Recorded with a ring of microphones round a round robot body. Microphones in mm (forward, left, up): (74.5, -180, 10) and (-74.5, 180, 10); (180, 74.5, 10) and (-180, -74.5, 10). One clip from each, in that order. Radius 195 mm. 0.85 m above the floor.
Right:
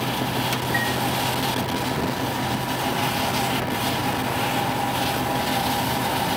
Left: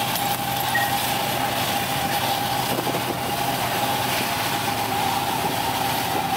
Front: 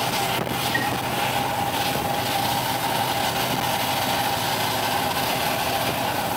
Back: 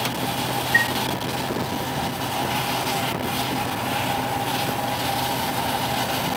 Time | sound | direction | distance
0.7 | a chime | 95° right | 1.8 m